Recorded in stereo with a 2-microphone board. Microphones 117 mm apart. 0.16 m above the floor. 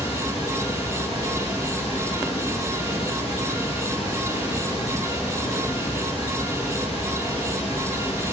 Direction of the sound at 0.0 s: 60° left (ahead or behind).